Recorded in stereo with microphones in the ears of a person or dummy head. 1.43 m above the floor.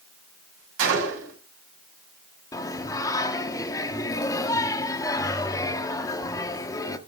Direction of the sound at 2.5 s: 20° left (ahead or behind).